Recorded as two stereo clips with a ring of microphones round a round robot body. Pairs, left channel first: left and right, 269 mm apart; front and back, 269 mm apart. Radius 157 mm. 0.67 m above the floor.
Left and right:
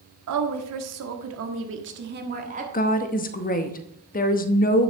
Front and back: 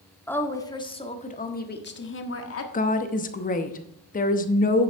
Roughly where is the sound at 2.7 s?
Ahead left.